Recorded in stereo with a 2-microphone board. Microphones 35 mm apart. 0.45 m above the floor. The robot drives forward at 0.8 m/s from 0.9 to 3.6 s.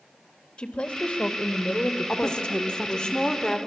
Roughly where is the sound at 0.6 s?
Left.